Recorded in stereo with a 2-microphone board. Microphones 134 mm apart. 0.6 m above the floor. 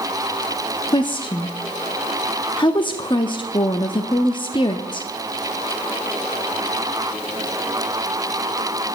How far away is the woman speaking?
About 0.7 m.